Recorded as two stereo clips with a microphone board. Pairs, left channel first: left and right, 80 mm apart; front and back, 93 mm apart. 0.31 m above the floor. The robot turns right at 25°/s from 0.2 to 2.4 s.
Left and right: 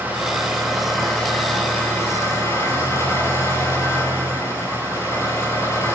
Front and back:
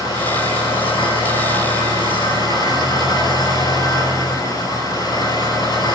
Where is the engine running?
20° right, 6 m; by 6.0 s 35° left, 6 m.